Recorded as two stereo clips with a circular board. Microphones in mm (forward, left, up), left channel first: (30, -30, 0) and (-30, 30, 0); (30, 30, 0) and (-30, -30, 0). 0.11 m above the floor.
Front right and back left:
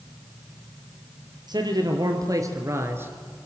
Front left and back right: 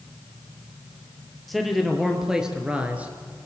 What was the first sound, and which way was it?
A man speaking, 135° left.